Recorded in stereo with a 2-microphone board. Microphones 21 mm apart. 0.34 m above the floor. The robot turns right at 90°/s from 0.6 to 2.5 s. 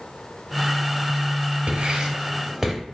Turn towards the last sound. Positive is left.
turn(degrees=-10)  # may be behind; listen again after turning